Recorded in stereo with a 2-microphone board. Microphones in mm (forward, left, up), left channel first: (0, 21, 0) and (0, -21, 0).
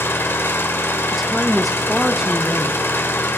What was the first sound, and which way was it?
An engine running, 75° left (ahead or behind).